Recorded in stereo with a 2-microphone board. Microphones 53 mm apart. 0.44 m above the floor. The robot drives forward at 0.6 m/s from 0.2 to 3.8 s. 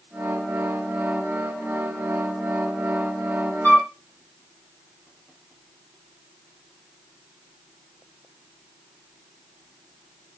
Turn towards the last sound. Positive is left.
turn(degrees=45)  # may be behind; listen again after turning